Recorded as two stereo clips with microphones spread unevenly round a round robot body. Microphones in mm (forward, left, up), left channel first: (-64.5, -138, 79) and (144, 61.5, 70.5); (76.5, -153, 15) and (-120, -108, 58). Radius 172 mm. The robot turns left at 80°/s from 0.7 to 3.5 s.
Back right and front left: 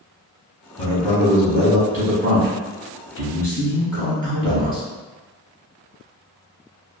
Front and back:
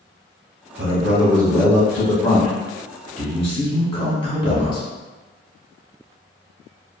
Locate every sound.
0.8 s a man speaking: straight behind, 1.0 m; by 4.8 s 40° right, 1.0 m